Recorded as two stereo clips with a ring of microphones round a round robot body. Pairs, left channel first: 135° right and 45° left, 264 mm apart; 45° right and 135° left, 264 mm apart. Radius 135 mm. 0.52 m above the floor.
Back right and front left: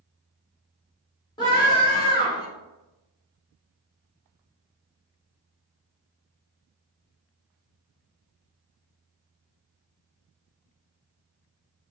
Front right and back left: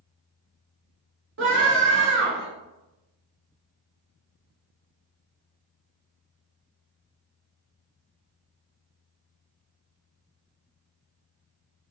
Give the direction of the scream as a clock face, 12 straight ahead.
7 o'clock.